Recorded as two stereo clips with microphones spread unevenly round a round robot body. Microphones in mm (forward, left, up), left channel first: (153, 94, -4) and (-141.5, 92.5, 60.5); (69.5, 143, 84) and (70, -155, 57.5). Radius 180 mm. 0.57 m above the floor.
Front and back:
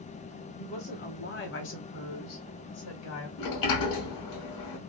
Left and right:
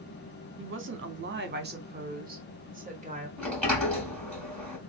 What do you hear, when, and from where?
0.6 s a woman speaking: 60° right, 1.1 m; by 3.3 s 25° right, 2 m
3.4 s a sliding door: 5° left, 2 m